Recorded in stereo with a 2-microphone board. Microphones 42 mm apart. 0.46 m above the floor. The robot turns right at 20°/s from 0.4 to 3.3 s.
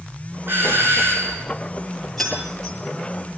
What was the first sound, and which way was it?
A doorbell, 55° right (ahead or behind).